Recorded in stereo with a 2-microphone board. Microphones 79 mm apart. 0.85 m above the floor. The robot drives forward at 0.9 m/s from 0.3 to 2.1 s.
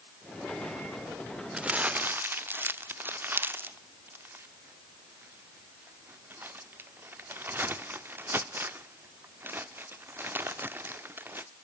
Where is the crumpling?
15° right (ahead or behind), 1.0 m; by 11.5 s 25° right (ahead or behind), 0.6 m.